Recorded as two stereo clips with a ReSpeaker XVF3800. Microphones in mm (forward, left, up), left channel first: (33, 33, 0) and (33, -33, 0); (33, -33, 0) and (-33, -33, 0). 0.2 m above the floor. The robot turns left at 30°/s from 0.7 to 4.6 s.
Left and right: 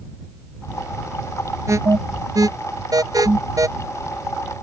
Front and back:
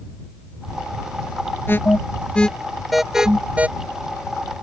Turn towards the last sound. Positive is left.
turn(degrees=-140)